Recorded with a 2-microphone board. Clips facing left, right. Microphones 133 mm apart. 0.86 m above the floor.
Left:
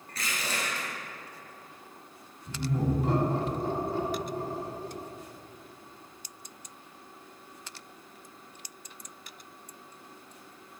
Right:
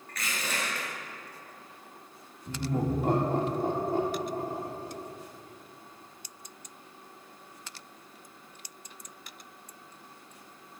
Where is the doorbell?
No doorbell in this recording.